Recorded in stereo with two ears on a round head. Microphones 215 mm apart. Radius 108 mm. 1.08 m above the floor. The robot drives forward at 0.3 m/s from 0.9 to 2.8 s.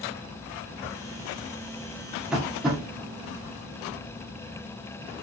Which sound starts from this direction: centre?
Tapping, at 2.3 s.